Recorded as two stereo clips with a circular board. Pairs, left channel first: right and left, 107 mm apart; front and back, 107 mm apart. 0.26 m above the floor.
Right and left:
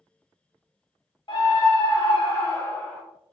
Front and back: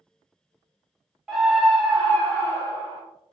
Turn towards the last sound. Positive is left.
turn(degrees=-20)